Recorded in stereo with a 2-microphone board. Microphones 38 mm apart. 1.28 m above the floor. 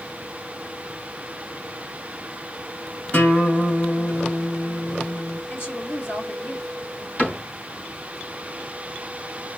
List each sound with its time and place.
3.1 s a guitar: 45° left (ahead or behind), 1.9 m
5.5 s a woman speaking: 65° left (ahead or behind), 1.5 m
7.2 s a cupboard door: 50° left (ahead or behind), 2.5 m